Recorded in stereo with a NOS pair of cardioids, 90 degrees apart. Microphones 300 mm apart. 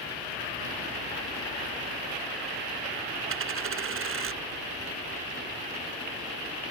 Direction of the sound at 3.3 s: 45° right.